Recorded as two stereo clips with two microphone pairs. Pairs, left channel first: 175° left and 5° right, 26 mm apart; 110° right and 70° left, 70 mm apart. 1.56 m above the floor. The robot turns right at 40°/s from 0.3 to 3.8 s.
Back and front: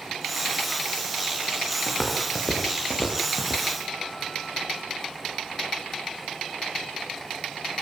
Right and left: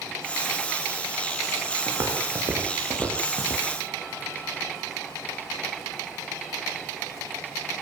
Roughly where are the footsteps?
Left.